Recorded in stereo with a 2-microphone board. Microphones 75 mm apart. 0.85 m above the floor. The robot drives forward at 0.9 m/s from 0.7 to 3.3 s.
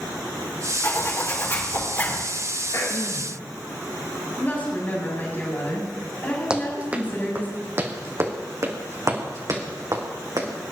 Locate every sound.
0.8 s a zipper: 40° left (ahead or behind), 4.5 m; by 2.2 s 30° left (ahead or behind), 6 m
2.7 s throat clearing: 50° left (ahead or behind), 2 m; by 3.3 s 40° left (ahead or behind), 2.5 m
4.4 s a woman speaking: 25° left (ahead or behind), 7 m
6.5 s running footsteps: 15° right (ahead or behind), 2.5 m; by 10.5 s 60° right (ahead or behind), 4 m